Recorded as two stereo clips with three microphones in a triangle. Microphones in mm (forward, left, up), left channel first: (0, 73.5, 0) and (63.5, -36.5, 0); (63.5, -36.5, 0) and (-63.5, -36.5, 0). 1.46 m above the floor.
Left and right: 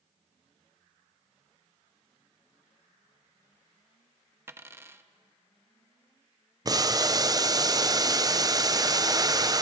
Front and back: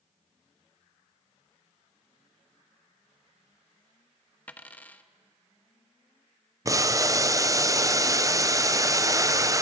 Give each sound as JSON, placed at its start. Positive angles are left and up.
{"t": 4.5, "sound": "a dropped coin", "azimuth_deg": -50, "distance_m": 0.8}
{"t": 6.7, "sound": "boiling", "azimuth_deg": -115, "distance_m": 0.5}